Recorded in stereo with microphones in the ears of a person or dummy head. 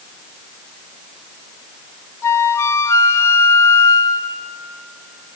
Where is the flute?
15° left (ahead or behind), 0.7 m.